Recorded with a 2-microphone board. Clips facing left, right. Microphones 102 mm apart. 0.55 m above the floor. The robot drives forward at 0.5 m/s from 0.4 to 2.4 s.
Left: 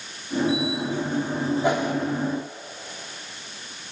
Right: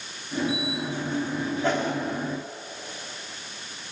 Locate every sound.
1.6 s a whoosh: 15° left (ahead or behind), 1.5 m